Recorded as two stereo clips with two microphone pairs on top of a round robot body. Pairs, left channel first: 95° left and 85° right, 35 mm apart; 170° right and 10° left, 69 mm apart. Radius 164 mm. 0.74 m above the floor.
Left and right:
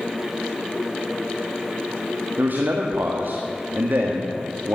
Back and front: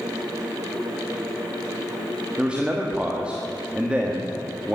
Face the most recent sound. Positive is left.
turn(degrees=-65)